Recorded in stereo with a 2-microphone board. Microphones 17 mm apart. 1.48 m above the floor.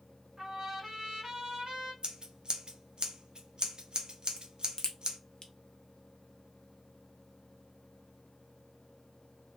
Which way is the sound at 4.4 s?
55° left (ahead or behind).